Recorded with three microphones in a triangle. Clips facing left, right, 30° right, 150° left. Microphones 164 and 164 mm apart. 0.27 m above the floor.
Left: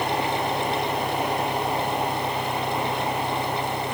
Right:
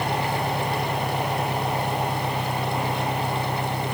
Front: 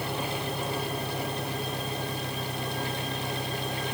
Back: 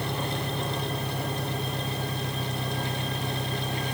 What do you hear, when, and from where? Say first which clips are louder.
0.0 s an engine running: left 1 dB, back 1 dB; 130° right